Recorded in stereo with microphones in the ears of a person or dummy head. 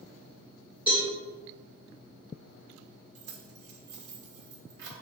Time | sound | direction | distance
0.9 | a cowbell | 10° right (ahead or behind) | 1.8 m
3.1 | keys jangling | 65° right (ahead or behind) | 1.0 m